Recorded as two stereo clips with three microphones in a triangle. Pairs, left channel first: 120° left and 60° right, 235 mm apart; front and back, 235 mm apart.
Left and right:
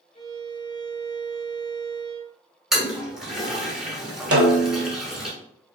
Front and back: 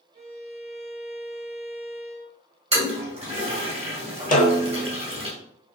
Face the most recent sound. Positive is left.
turn(degrees=-50)